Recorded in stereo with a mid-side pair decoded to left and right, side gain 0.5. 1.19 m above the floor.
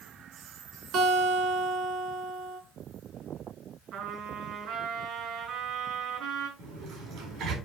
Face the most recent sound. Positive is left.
turn(degrees=-70)